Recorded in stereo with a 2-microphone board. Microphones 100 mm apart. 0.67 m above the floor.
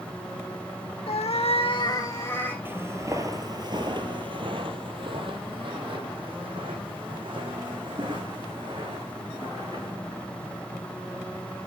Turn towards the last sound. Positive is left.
turn(degrees=-50)  # may be behind; listen again after turning